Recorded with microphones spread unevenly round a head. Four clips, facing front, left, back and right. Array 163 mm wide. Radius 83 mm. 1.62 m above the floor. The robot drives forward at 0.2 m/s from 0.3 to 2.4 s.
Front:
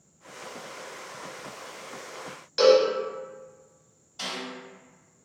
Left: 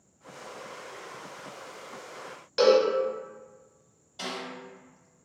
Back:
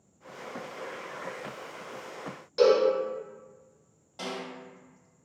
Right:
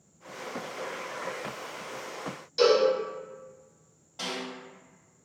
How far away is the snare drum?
About 1.3 m.